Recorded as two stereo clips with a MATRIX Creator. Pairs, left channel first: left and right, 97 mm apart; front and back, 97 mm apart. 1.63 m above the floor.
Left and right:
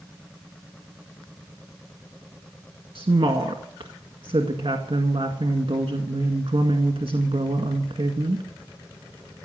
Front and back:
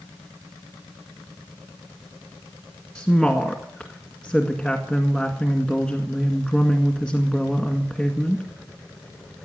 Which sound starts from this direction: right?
A woman speaking, at 3.0 s.